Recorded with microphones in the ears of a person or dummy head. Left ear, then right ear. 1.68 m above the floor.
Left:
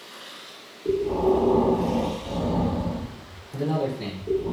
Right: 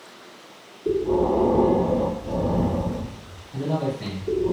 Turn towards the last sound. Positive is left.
turn(degrees=55)  # may be behind; listen again after turning